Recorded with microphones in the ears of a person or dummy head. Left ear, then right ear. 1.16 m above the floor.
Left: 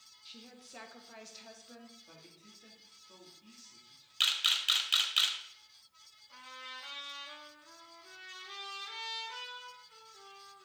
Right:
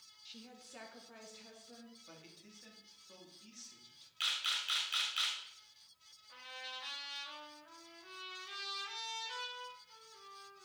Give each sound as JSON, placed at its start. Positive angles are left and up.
{"t": 0.2, "sound": "a woman speaking", "side_deg": 0, "distance_m": 1.0}
{"t": 2.1, "sound": "a man speaking", "side_deg": -30, "distance_m": 3.0}
{"t": 4.2, "sound": "a camera shutter", "side_deg": 25, "distance_m": 1.5}
{"t": 6.3, "sound": "a trumpet", "side_deg": -30, "distance_m": 4.0}